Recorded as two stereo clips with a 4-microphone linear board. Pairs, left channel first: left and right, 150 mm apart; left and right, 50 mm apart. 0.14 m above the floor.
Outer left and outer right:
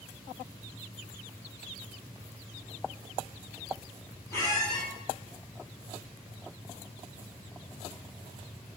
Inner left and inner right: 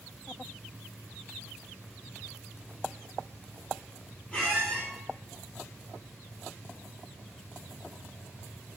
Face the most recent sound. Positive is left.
turn(degrees=20)  # may be behind; listen again after turning